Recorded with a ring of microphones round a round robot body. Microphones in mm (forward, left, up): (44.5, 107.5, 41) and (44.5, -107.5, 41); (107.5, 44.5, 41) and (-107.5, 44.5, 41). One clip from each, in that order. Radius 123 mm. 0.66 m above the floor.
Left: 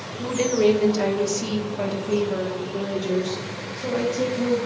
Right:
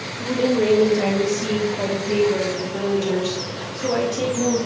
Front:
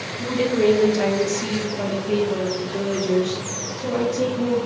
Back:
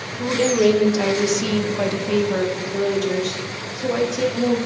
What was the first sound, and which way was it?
A woman speaking, 110° left.